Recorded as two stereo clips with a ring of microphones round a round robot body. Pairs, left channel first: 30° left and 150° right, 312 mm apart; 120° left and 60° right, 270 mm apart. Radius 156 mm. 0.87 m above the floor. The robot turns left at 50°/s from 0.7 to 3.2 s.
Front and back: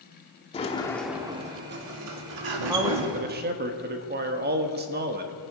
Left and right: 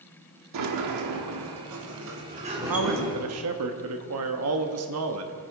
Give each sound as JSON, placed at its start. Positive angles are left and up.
{"t": 0.5, "sound": "a sliding door", "azimuth_deg": -40, "distance_m": 1.4}
{"t": 2.7, "sound": "a man speaking", "azimuth_deg": -65, "distance_m": 1.2}